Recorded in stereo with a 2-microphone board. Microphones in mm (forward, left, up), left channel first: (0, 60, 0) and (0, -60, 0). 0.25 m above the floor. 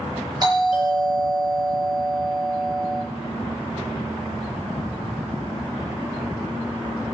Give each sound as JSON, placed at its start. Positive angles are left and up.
{"t": 0.4, "sound": "a doorbell", "side_deg": -35, "distance_m": 6.0}